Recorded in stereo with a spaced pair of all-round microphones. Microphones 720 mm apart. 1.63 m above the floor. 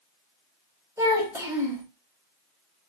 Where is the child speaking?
5° right (ahead or behind), 1.8 m.